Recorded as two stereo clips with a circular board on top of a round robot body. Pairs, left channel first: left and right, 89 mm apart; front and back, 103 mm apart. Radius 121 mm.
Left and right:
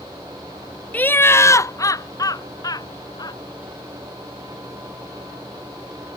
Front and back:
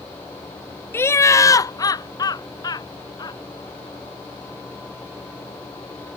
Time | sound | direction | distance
0.9 | laughter | 40° left | ?